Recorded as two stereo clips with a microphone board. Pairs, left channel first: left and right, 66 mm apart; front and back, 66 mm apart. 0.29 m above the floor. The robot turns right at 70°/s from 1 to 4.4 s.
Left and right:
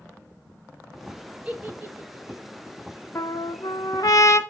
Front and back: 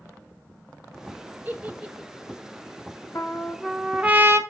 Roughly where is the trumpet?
Ahead left.